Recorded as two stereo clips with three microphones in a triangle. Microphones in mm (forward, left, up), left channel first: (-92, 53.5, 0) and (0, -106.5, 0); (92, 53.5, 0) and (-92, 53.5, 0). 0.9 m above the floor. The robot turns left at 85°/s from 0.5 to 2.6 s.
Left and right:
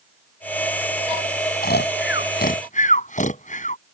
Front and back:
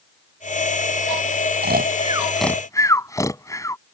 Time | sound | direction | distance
1.6 | snoring | 155° left | ?